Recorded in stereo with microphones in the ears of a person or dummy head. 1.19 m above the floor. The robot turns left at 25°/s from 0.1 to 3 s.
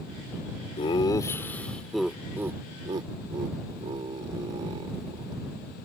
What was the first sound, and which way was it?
Laughter, 30° left (ahead or behind).